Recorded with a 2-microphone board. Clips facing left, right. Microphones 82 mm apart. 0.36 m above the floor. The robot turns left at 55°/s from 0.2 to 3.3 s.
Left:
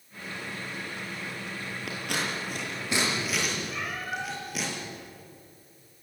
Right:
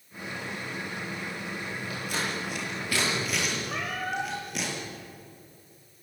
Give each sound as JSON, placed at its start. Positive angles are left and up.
{"t": 1.9, "sound": "scissors", "side_deg": 80, "distance_m": 7.0}
{"t": 3.7, "sound": "a cat meowing", "side_deg": -50, "distance_m": 4.5}